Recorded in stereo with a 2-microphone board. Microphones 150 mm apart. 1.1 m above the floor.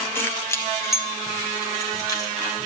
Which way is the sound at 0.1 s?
15° left (ahead or behind).